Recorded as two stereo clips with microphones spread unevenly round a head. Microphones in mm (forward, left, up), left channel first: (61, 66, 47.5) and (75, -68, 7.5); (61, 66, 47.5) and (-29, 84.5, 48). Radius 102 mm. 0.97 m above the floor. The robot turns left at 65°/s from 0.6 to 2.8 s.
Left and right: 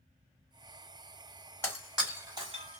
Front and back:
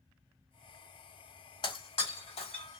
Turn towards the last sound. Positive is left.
turn(degrees=-55)